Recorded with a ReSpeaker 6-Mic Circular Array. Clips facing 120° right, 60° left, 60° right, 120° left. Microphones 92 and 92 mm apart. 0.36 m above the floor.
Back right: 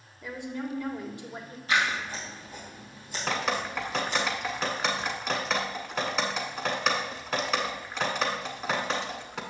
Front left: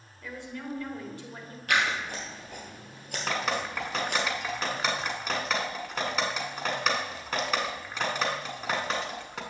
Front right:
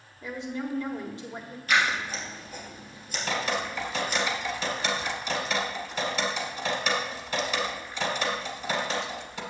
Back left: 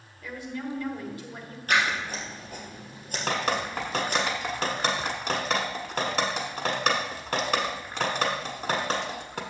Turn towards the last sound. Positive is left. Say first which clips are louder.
# back right 1 dB, back left 2 dB
turn(degrees=150)